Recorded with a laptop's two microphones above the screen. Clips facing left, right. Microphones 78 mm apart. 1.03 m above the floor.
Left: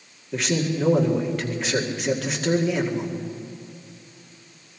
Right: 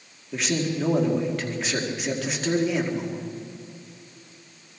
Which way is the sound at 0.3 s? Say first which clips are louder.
Left 2 dB; centre (ahead or behind).